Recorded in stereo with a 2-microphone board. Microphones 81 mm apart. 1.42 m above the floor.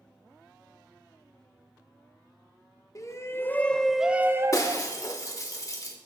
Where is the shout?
40° left (ahead or behind), 1.2 m; by 5.0 s 55° right (ahead or behind), 1.0 m.